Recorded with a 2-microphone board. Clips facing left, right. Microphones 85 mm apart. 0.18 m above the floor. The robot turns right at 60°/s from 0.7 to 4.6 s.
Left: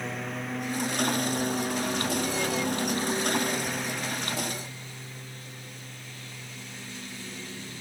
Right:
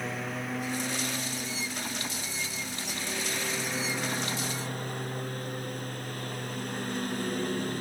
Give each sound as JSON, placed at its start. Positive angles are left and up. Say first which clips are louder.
{"t": 0.0, "sound": "a lawn mower", "louder": "even", "azimuth_deg": 0}